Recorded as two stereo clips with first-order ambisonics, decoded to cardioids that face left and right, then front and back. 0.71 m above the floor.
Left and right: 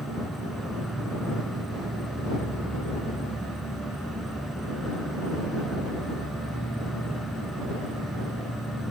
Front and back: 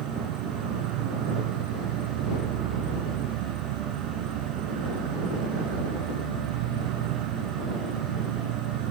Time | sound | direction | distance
0.0 | an insect | straight behind | ?